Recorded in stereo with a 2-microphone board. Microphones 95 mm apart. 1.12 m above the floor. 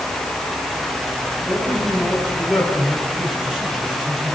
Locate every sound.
1.4 s a man speaking: centre (ahead or behind), 8.5 m; by 4.4 s 5° right (ahead or behind), 9.5 m